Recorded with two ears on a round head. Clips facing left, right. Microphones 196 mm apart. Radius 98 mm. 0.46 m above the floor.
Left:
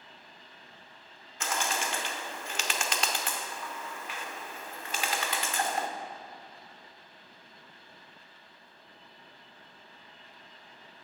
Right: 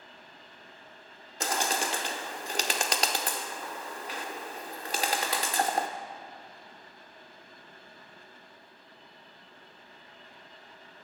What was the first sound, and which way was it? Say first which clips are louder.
A bird: right 3 dB; 35° right (ahead or behind).